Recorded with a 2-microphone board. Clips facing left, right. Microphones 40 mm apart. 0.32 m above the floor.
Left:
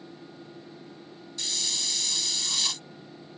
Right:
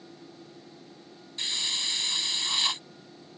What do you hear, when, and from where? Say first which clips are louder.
1.4 s a hiss: right 2 dB; 30° right (ahead or behind)